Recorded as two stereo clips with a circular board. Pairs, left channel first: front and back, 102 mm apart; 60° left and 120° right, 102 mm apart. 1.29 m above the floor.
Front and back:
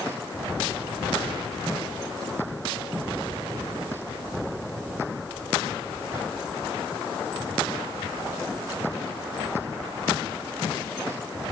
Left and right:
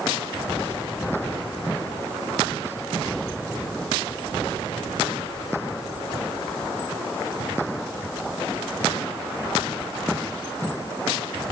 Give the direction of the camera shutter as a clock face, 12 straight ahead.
I don't hear a camera shutter.